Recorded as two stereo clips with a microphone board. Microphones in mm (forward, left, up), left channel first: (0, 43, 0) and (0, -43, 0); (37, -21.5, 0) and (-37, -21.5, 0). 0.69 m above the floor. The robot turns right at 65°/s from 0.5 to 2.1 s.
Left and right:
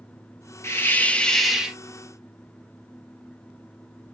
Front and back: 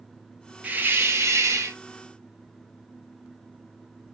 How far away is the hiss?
About 1.1 m.